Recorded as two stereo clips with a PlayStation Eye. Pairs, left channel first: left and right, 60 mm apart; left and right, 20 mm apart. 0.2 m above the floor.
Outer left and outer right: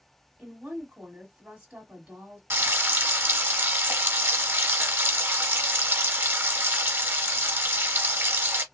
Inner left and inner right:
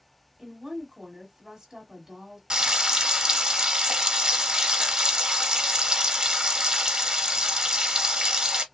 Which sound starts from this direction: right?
Frying, at 2.5 s.